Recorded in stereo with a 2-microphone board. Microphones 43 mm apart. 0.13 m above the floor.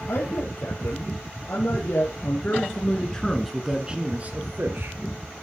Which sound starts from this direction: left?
A man speaking, at 0.1 s.